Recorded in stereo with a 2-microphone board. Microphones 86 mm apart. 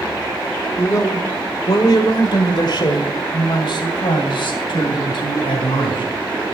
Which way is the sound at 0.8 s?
35° left (ahead or behind).